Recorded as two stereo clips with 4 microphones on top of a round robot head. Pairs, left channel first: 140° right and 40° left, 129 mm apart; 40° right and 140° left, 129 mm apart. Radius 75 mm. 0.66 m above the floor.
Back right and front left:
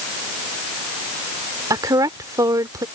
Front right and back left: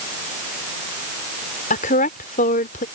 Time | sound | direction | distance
1.7 | a woman speaking | 25° right | ?